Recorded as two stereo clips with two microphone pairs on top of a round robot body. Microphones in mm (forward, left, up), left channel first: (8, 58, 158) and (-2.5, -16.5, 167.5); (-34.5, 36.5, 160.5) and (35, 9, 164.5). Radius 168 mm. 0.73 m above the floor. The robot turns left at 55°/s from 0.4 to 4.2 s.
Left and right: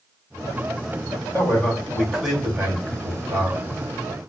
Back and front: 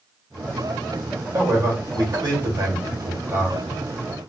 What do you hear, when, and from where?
1.3 s a man speaking: 40° left, 1.6 m; by 3.6 s 85° right, 1.6 m